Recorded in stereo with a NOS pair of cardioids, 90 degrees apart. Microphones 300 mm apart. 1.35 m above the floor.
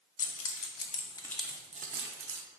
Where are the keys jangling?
50° left, 0.9 m; by 2.4 s 55° right, 0.7 m.